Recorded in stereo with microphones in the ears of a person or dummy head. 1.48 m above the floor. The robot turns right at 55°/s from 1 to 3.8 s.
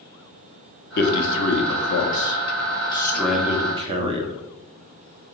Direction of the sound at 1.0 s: 50° left (ahead or behind).